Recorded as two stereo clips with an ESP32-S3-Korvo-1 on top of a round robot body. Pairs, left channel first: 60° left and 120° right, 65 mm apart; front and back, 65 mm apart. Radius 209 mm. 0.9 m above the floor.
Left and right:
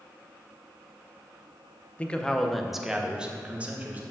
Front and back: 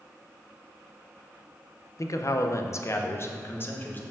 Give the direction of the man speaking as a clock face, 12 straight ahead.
12 o'clock.